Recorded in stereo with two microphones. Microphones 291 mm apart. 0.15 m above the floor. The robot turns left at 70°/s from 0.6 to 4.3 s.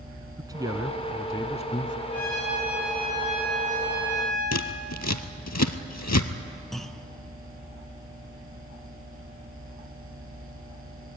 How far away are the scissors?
About 1.0 m.